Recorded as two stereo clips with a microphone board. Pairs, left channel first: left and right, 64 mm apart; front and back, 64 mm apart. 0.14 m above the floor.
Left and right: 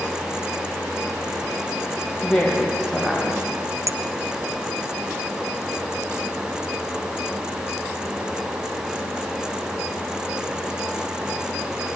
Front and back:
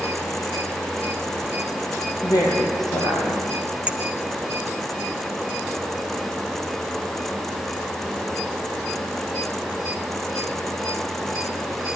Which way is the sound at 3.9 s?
110° right.